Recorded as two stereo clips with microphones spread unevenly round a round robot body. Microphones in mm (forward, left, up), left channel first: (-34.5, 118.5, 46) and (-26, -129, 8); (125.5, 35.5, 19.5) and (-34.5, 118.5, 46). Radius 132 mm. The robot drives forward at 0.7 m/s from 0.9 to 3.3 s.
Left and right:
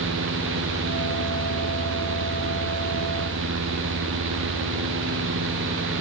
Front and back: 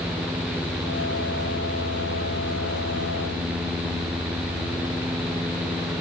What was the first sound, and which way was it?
Only background noise.